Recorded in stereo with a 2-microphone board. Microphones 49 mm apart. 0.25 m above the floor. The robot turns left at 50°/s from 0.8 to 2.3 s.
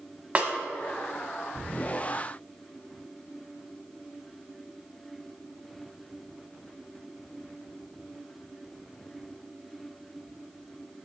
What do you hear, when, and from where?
0.3 s a snare drum: 30° right (ahead or behind), 0.6 m